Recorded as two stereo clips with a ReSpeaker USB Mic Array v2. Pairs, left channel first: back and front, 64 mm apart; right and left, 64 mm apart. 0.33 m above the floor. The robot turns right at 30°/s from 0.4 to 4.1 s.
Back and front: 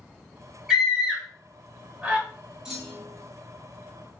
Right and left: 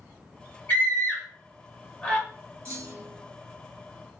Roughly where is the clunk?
Left.